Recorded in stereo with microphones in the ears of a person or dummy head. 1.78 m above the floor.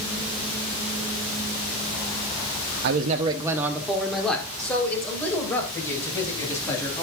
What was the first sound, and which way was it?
A man speaking, 65° right (ahead or behind).